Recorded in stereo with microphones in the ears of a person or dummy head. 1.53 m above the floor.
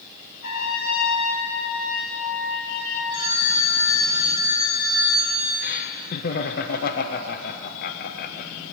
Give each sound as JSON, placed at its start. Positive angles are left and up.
{"t": 0.4, "sound": "a trumpet", "side_deg": 60, "distance_m": 3.5}
{"t": 3.1, "sound": "a phone ringing", "side_deg": 85, "distance_m": 6.5}
{"t": 5.6, "sound": "laughter", "side_deg": 50, "distance_m": 0.7}